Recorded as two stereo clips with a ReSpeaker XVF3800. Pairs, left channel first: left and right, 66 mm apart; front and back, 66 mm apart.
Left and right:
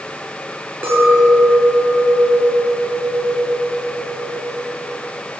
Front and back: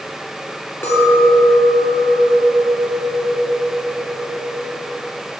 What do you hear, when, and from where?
0.8 s a clink: 40° right, 1.8 m